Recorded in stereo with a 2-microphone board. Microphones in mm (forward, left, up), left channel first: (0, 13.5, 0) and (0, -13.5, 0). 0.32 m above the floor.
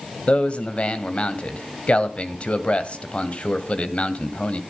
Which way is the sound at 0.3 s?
45° left (ahead or behind).